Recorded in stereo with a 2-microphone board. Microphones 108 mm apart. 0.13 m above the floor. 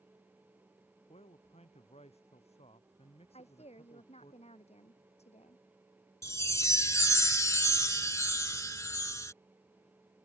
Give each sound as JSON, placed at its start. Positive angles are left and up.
{"t": 1.1, "sound": "a man speaking", "side_deg": 80}
{"t": 3.3, "sound": "a woman speaking", "side_deg": 80}
{"t": 6.2, "sound": "a chime", "side_deg": 30}